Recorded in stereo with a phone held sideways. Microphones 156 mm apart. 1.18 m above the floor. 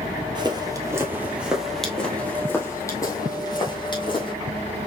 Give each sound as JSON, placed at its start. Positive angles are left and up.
{"t": 0.3, "sound": "footsteps", "side_deg": -30, "distance_m": 1.4}